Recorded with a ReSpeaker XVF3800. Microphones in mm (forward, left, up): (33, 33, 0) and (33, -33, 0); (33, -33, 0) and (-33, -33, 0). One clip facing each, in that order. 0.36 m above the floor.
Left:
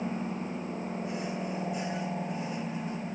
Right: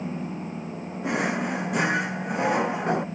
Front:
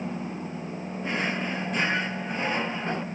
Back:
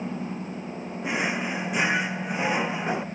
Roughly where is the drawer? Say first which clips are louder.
Right 8 dB, back 2 dB; right.